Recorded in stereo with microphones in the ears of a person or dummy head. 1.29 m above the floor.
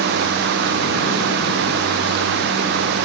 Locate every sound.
Only background noise.